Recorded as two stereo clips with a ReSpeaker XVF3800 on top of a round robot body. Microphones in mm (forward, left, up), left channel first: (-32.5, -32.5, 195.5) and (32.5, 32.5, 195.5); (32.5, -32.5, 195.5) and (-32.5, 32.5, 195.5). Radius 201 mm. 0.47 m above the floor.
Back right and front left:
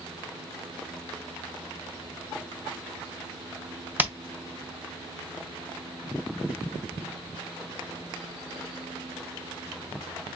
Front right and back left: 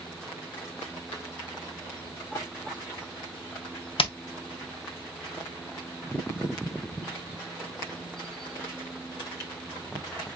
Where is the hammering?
25° right, 0.8 m.